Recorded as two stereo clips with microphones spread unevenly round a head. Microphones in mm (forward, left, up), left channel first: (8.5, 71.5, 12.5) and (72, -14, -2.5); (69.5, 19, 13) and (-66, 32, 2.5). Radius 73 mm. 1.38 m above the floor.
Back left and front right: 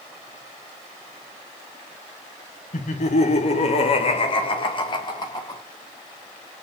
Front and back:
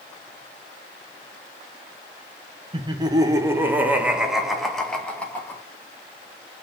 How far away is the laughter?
About 1.8 m.